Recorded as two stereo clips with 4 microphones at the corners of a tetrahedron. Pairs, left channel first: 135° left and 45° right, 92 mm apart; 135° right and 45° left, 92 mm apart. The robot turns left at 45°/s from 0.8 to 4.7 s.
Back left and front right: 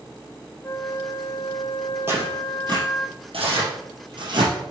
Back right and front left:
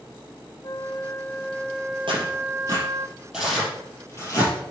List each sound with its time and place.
0.6 s a flute: 175° right, 0.5 m; by 3.1 s 80° left, 0.5 m
2.1 s tearing paper: 20° left, 5.5 m; by 4.5 s 90° right, 5.5 m